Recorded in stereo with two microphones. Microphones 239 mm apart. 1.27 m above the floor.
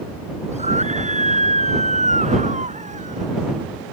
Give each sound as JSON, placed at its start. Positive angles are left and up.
{"t": 0.5, "sound": "a scream", "side_deg": -30}